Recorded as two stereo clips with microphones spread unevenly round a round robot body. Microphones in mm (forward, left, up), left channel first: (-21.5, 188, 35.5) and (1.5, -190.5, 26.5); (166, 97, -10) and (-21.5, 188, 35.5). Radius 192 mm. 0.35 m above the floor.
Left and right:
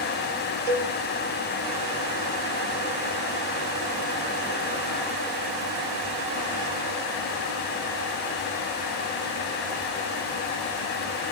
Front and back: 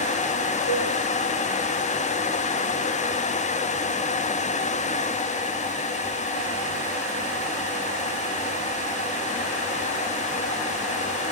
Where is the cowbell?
90° right, 5.5 m.